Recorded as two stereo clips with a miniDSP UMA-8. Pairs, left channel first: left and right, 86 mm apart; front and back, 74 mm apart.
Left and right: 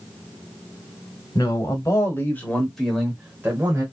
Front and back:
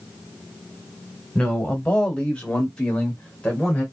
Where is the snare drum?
No snare drum in this recording.